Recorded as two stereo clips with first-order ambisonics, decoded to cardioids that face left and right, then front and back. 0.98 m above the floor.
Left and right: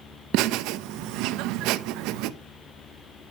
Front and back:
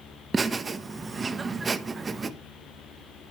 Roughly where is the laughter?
Right.